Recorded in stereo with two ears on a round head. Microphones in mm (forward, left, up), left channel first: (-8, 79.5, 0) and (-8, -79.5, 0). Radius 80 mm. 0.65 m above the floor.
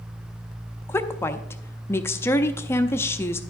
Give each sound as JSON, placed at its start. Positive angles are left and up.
{"t": 0.9, "sound": "a woman speaking", "side_deg": 15, "distance_m": 0.6}